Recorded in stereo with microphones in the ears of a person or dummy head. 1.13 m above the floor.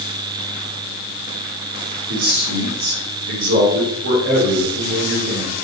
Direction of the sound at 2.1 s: 75° right (ahead or behind).